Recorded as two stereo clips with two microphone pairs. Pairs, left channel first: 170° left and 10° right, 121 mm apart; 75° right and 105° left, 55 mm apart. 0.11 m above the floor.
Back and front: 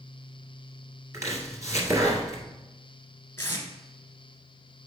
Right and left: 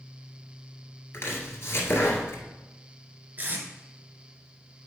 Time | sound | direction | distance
1.1 | chopping | 60° right | 1.9 m
3.4 | tape being pulled | 120° left | 1.5 m